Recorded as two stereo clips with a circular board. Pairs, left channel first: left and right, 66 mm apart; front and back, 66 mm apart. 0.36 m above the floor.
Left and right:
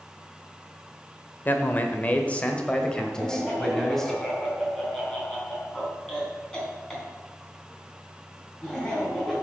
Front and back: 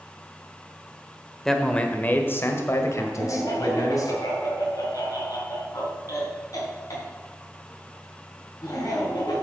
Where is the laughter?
15° left, 4 m.